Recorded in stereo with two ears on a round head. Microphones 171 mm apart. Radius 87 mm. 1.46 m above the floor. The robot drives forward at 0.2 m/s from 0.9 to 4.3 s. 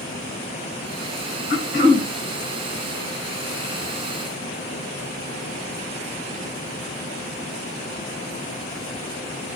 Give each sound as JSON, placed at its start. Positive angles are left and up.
{"t": 1.5, "sound": "throat clearing", "side_deg": 55, "distance_m": 1.0}